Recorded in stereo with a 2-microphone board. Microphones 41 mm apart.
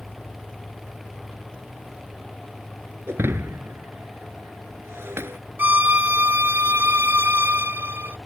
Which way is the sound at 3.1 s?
80° right.